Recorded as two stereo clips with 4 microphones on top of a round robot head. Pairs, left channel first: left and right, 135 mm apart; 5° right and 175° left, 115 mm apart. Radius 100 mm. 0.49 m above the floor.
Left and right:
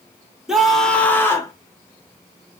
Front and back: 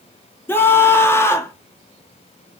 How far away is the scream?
About 1.3 m.